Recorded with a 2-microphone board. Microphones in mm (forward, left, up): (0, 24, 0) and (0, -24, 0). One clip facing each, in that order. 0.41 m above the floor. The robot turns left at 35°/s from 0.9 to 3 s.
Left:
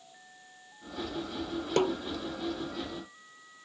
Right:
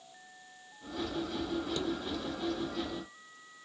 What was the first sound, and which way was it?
A snare drum, 60° left (ahead or behind).